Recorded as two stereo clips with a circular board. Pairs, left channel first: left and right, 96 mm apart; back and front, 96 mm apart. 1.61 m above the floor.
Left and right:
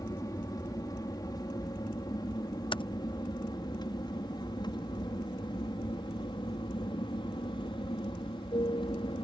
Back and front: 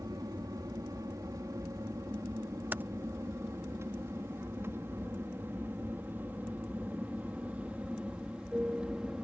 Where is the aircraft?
45° left; by 9.2 s 80° left.